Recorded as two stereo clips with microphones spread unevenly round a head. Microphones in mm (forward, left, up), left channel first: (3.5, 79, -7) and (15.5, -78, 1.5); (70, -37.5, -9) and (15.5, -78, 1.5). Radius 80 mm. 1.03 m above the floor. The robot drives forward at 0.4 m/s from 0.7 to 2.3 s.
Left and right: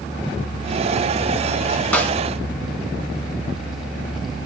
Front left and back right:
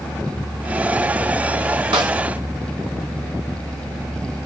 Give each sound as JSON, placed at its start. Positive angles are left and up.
{"t": 1.9, "sound": "a snare drum", "azimuth_deg": 175, "distance_m": 0.8}